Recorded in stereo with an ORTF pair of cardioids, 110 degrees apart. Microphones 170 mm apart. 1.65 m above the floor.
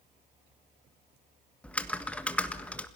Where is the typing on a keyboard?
10° left, 1.6 m.